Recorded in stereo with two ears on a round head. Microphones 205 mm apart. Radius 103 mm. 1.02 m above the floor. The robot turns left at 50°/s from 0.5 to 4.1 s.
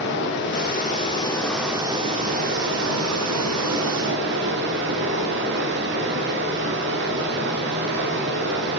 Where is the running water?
55° left, 1.2 m; by 8.8 s 125° right, 1.2 m.